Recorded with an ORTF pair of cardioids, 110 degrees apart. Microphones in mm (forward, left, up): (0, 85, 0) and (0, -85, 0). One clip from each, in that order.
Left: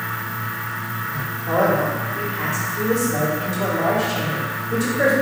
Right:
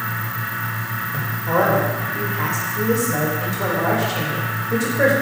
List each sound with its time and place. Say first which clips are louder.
0.0 s a fan: right 1 dB; 60° right, 1.2 m
1.5 s a man speaking: right 1 dB; 15° right, 1.5 m